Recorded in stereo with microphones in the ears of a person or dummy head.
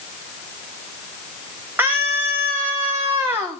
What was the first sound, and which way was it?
A scream, 15° right (ahead or behind).